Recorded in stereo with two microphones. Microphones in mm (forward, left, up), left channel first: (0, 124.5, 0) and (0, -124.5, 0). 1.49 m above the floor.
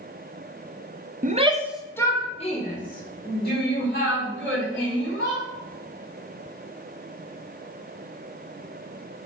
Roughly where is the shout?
Right.